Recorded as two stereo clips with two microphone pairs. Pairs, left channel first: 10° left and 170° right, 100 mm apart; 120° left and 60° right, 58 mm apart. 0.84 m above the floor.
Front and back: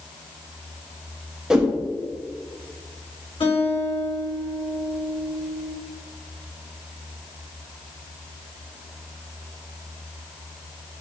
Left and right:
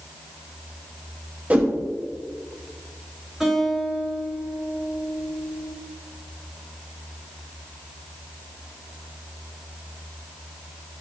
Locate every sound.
1.5 s a whoosh: 90° right, 0.8 m
3.4 s a guitar: 25° left, 1.9 m